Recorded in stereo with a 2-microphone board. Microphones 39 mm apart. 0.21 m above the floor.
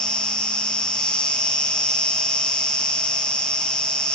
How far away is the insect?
About 1.1 m.